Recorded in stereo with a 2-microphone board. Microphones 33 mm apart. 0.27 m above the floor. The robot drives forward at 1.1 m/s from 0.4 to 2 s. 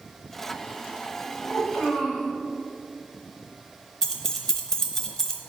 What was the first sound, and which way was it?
A child speaking, 50° left (ahead or behind).